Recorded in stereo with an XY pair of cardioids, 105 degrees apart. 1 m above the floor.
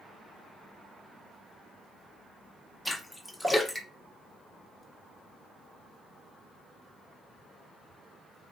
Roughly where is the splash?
Ahead.